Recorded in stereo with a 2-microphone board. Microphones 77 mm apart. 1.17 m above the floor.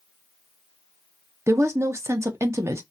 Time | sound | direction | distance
1.5 | a woman speaking | 40° right (ahead or behind) | 0.5 m